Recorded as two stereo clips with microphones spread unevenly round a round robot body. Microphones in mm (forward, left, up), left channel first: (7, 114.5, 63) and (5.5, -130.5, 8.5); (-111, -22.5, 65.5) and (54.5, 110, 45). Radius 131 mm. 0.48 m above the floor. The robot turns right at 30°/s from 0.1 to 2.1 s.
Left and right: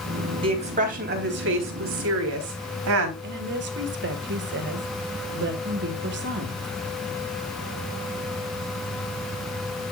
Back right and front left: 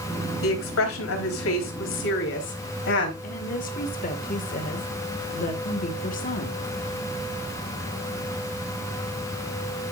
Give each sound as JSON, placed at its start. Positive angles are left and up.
{"t": 0.4, "sound": "a woman speaking", "azimuth_deg": -155, "distance_m": 3.5}
{"t": 3.2, "sound": "a woman speaking", "azimuth_deg": -95, "distance_m": 2.0}